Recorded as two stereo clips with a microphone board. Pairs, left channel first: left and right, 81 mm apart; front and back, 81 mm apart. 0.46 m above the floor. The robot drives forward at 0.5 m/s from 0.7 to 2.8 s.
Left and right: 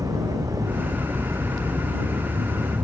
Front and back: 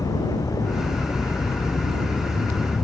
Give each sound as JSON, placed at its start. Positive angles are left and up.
{"t": 0.0, "sound": "a vehicle", "azimuth_deg": -45}